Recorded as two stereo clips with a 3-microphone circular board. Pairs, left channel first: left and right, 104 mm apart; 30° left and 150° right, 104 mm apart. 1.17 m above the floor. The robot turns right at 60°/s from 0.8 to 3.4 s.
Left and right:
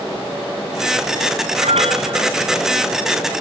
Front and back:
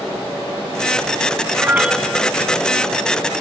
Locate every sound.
1.6 s a piano: 85° right; by 2.3 s 45° right